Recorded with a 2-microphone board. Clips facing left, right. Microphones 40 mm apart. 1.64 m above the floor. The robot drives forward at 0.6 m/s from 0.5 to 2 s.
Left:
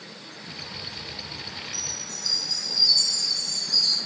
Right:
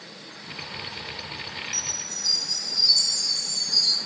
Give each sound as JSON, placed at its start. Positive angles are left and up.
{"t": 1.7, "sound": "a chime", "side_deg": -60, "distance_m": 7.0}